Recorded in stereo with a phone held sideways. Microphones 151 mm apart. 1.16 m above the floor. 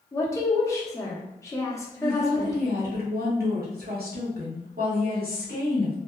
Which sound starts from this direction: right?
A woman speaking, at 2.0 s.